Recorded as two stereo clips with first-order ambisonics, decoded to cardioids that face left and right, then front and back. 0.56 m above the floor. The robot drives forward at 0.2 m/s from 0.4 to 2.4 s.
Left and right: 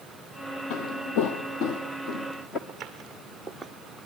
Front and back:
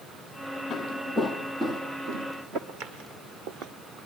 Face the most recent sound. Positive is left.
turn(degrees=175)